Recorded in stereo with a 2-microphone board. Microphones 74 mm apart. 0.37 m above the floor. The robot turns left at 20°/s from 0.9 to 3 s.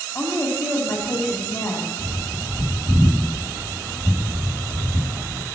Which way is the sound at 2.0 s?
40° right (ahead or behind).